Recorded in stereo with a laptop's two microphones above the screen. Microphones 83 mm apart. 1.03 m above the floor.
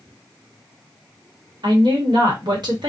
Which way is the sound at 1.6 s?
60° right (ahead or behind).